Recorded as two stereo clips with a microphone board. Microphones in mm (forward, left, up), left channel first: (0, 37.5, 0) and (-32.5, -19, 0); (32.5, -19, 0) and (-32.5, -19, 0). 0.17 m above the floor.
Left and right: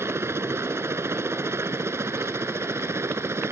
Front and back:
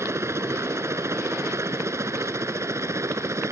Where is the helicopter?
155° right.